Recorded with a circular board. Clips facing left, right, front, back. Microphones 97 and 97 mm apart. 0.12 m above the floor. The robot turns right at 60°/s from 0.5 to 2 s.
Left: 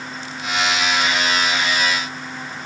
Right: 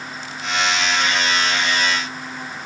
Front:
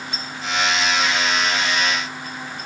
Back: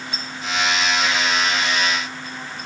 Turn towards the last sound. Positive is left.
No sound to turn to.